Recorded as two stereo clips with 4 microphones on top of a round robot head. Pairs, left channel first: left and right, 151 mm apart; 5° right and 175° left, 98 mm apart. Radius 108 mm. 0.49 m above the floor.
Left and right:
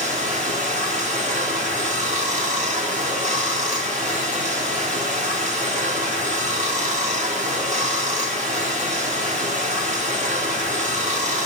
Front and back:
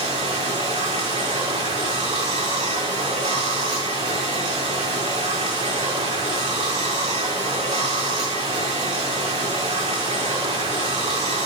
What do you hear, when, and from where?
0.0 s running water: 130° right, 3.5 m